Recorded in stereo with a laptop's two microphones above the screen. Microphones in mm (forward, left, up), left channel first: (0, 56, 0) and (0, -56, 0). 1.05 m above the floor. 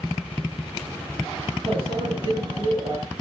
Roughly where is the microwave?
Right.